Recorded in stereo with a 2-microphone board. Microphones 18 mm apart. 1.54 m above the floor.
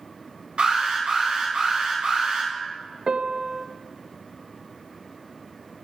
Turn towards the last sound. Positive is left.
turn(degrees=-55)  # may be behind; listen again after turning